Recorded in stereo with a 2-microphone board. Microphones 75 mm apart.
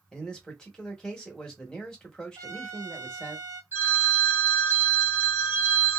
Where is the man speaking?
10° left (ahead or behind), 1.1 m.